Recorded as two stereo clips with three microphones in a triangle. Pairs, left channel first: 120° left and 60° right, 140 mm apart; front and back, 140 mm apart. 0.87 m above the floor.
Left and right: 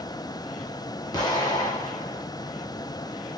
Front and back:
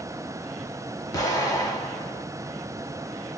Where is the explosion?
65° left, 1.3 m.